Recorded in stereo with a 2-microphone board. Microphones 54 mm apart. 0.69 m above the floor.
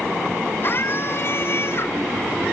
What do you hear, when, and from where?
0.6 s a scream: 45° left (ahead or behind); by 2.0 s 50° left (ahead or behind)